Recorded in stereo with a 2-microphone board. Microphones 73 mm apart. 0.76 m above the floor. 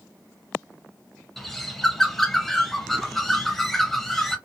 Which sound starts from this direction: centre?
A bird, at 1.4 s.